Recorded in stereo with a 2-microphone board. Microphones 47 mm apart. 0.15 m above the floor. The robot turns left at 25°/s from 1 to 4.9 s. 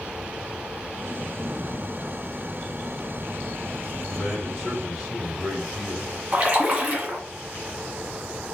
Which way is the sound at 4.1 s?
10° left (ahead or behind).